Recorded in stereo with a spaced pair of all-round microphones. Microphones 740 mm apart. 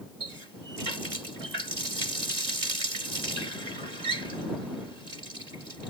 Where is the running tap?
60° right (ahead or behind).